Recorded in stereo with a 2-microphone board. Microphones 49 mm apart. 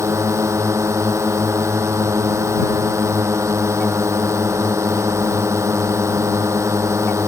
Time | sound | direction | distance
0.0 | a drone | 80° right | ?